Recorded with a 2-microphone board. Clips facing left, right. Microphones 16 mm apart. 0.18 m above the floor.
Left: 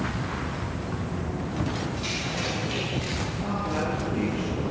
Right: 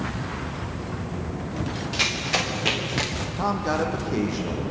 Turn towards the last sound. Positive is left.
turn(degrees=-80)